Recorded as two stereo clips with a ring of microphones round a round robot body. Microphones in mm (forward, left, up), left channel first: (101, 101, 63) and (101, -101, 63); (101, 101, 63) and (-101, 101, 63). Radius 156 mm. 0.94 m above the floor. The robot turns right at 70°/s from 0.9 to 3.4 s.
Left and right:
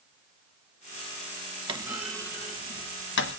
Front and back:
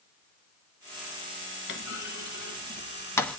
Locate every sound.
1.7 s a clunk: 25° right, 1.1 m; by 3.4 s 90° left, 1.1 m